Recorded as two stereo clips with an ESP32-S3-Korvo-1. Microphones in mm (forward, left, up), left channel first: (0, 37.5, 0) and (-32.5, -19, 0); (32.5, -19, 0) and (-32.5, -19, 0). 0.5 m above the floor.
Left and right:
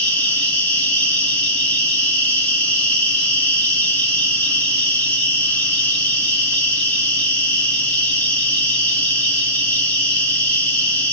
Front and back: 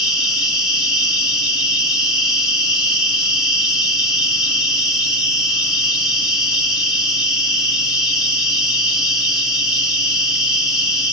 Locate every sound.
0.0 s an insect: 110° left, 1.6 m